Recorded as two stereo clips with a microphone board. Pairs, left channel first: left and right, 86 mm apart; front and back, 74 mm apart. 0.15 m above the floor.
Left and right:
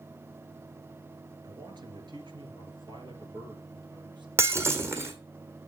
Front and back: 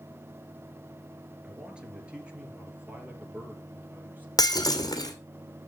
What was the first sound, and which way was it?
A man speaking, 105° right.